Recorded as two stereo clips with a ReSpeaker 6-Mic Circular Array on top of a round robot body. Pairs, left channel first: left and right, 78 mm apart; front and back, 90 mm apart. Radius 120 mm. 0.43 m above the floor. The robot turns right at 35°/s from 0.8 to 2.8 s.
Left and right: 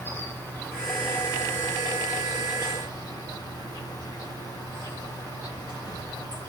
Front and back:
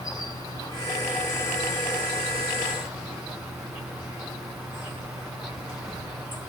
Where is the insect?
25° left, 3 m; by 6.5 s 95° left, 3 m.